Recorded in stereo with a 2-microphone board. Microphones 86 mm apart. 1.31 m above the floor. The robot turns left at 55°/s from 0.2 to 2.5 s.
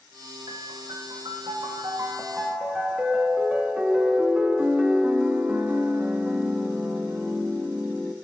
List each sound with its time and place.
0.5 s a piano: 55° right, 1.2 m; by 8.1 s 170° right, 1.2 m